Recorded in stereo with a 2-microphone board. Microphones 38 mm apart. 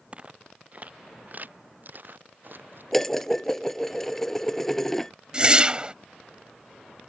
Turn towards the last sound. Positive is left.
turn(degrees=-25)  # may be behind; listen again after turning